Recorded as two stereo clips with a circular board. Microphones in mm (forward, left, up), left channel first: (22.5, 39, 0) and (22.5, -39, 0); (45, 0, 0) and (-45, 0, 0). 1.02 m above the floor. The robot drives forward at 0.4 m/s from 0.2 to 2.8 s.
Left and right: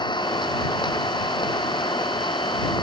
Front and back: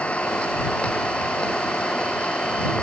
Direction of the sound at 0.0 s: 80° left.